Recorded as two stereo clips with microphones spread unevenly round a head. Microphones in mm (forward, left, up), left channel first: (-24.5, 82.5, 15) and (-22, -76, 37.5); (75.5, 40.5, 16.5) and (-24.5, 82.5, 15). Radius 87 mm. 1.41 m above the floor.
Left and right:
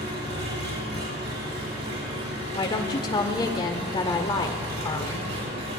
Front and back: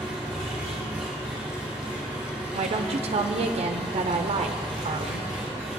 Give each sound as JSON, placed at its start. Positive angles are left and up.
{"t": 0.0, "sound": "an engine running", "azimuth_deg": -105, "distance_m": 3.0}
{"t": 2.5, "sound": "a woman speaking", "azimuth_deg": 145, "distance_m": 0.6}